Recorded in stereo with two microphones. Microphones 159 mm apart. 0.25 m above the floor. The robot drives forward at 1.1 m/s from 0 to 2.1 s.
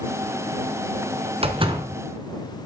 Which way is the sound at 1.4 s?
35° right (ahead or behind).